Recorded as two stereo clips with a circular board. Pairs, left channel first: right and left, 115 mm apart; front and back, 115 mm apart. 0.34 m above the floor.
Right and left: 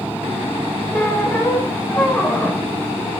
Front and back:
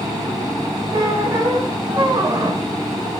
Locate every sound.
0.9 s a squeak: 155° right, 0.6 m